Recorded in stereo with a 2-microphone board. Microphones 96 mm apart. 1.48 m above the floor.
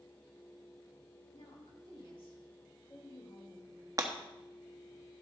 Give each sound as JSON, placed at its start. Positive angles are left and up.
{"t": 1.3, "sound": "a woman speaking", "side_deg": 75, "distance_m": 2.5}
{"t": 4.0, "sound": "breaking glass", "side_deg": -40, "distance_m": 1.1}